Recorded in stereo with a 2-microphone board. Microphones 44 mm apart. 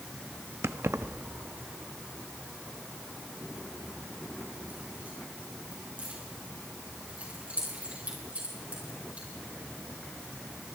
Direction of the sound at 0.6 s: 75° right (ahead or behind).